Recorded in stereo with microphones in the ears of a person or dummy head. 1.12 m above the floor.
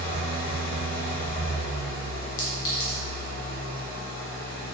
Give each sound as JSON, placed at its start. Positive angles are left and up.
{"t": 0.0, "sound": "an engine running", "side_deg": 75, "distance_m": 1.8}
{"t": 2.4, "sound": "a clink", "side_deg": 55, "distance_m": 0.7}